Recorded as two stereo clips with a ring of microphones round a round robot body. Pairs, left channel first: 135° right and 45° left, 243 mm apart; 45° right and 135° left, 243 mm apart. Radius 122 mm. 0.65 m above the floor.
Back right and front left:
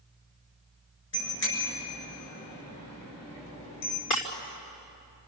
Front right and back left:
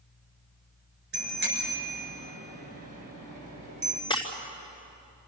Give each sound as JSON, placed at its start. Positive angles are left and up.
{"t": 1.1, "sound": "a bicycle bell", "azimuth_deg": -170, "distance_m": 6.0}
{"t": 4.1, "sound": "breaking glass", "azimuth_deg": -115, "distance_m": 3.0}